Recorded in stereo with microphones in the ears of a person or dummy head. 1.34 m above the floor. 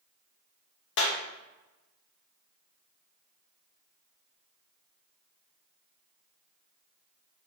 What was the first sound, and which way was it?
A clap, 70° left (ahead or behind).